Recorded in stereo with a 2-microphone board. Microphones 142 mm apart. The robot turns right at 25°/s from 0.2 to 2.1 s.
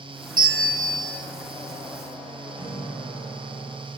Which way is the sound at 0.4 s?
90° right.